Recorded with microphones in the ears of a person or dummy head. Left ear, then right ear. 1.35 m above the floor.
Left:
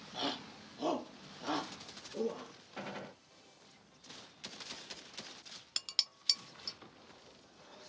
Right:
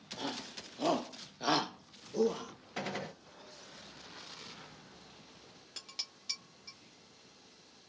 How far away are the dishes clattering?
About 0.6 m.